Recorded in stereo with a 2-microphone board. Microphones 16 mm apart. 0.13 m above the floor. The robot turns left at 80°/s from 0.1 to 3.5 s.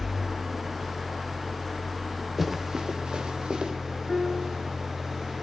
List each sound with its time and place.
0.0 s an engine running: 175° right, 6 m; by 5.4 s 90° right, 6 m
2.4 s running footsteps: 20° right (ahead or behind), 2.5 m; by 3.7 s 80° right, 3 m
4.1 s a piano: 20° right (ahead or behind), 1.2 m